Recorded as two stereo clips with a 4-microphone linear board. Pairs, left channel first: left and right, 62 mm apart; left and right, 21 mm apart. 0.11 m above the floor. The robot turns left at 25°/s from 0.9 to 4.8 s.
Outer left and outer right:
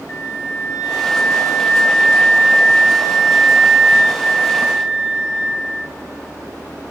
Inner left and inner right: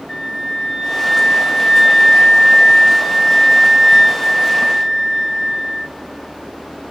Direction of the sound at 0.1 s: 135° left.